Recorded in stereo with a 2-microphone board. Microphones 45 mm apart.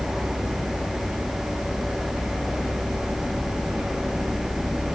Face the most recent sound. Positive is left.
No sound to turn to.